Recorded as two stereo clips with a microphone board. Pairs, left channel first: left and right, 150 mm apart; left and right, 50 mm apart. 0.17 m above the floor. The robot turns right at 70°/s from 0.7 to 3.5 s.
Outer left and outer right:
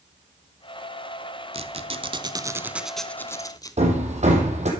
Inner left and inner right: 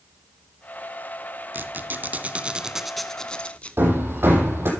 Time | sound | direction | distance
1.5 | a squeak | 100° right | 0.9 m
3.8 | hammering | 50° right (ahead or behind) | 4 m